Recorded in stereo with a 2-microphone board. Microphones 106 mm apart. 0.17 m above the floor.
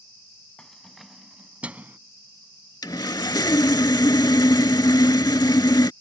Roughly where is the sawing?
Left.